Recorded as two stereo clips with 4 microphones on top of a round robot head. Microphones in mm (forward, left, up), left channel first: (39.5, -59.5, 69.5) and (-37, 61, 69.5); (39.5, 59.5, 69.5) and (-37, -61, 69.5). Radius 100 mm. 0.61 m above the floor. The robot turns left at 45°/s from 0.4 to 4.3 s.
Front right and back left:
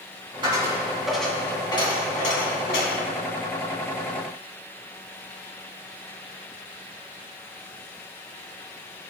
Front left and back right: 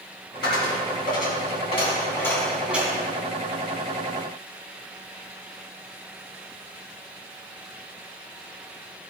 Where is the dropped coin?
65° left, 3 m; by 3.0 s 55° right, 3 m.